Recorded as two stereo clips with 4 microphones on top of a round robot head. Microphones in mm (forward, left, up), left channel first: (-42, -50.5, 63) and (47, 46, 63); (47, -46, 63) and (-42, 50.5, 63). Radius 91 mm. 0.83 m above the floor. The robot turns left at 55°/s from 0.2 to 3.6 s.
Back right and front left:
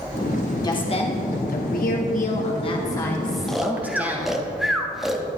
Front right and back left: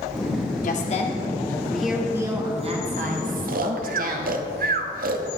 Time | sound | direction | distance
0.6 | a woman speaking | 70° right | 2.0 m
3.5 | snoring | 140° left | 0.8 m